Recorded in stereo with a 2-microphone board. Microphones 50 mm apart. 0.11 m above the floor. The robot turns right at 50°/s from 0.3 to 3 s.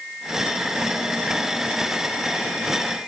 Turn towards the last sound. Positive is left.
No sound to turn to.